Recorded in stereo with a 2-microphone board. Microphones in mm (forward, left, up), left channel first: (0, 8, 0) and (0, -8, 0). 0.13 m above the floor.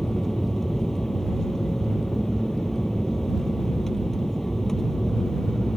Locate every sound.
0.0 s an aircraft: 15° left (ahead or behind)